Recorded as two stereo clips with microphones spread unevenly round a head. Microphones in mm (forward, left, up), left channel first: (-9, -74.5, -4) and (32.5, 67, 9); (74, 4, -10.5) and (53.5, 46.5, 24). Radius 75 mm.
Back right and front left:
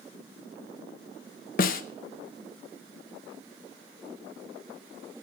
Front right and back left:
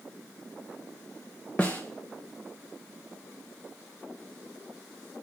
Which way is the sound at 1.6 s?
140° right.